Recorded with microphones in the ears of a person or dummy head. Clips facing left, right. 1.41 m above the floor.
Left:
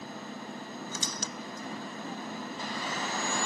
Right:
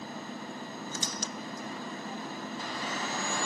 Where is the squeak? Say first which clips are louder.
Right 1 dB; 70° left (ahead or behind).